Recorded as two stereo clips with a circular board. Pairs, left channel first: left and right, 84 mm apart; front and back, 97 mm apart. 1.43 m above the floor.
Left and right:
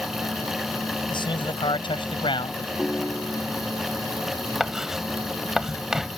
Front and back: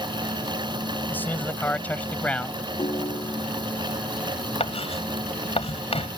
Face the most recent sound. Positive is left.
turn(degrees=-5)